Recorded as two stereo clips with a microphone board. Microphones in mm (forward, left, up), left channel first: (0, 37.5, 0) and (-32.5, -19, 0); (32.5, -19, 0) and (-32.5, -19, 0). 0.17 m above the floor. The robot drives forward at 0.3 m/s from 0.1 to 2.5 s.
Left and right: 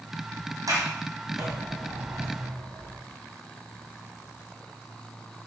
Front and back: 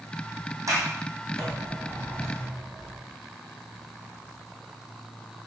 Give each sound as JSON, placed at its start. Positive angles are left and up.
{"t": 0.7, "sound": "a sliding door", "azimuth_deg": -145, "distance_m": 5.0}